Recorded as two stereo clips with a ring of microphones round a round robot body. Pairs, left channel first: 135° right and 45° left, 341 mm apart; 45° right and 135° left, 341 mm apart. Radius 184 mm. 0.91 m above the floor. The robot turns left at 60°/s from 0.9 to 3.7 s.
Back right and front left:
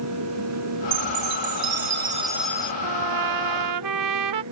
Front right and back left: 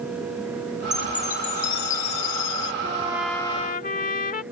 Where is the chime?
45° left; by 2.7 s 60° right.